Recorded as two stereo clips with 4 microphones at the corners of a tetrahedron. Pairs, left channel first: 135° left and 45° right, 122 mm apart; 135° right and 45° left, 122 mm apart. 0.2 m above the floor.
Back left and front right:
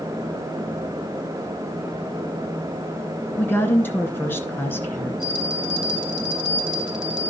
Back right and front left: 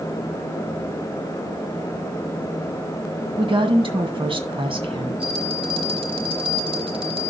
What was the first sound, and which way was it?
A woman speaking, 65° left.